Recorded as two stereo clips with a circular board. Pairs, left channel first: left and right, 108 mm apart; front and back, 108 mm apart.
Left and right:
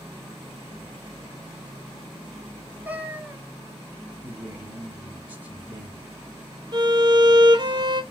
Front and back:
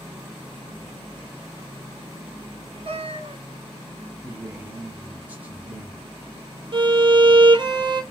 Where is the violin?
140° right, 0.7 m.